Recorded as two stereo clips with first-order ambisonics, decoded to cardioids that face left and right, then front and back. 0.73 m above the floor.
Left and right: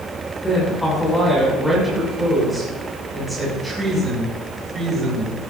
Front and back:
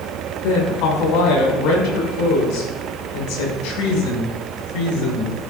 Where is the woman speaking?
10° left, 6 m; by 5.4 s 15° right, 6.5 m.